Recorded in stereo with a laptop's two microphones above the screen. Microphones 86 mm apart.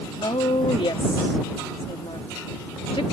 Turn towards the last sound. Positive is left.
turn(degrees=75)  # may be behind; listen again after turning